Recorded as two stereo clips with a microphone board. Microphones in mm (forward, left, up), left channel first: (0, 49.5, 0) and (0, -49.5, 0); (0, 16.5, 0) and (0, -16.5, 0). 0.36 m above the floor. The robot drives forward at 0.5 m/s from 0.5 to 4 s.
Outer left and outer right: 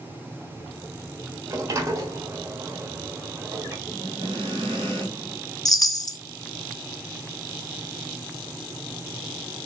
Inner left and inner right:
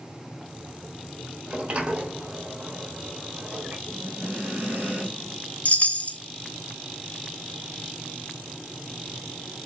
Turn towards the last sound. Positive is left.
turn(degrees=40)  # may be behind; listen again after turning